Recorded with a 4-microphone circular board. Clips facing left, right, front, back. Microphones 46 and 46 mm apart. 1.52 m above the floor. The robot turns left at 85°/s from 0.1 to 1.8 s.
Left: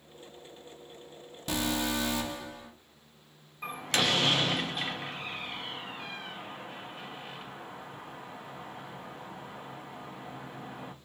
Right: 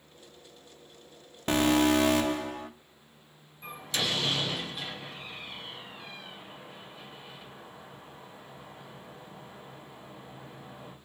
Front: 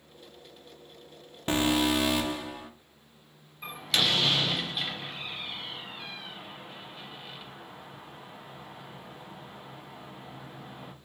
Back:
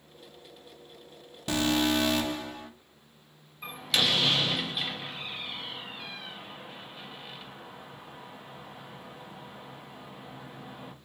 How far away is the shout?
I don't hear a shout.